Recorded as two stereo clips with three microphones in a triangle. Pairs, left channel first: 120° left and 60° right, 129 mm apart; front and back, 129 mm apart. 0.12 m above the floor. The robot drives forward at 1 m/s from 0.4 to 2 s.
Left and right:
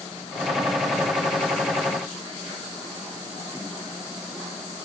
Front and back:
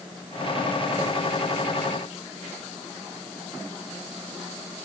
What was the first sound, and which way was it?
Only background noise.